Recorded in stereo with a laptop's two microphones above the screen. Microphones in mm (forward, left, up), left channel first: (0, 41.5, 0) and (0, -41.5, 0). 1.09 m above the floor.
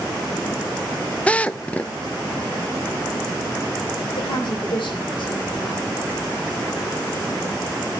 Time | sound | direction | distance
1.3 | a drill | 15° left (ahead or behind) | 0.5 m
4.2 | a woman speaking | 85° left | 3.5 m